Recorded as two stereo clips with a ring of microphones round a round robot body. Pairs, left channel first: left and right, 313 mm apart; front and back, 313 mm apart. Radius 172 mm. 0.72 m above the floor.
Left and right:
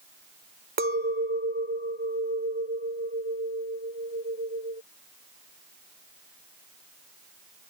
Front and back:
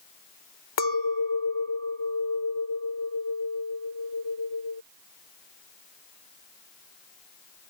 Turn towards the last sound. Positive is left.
turn(degrees=-25)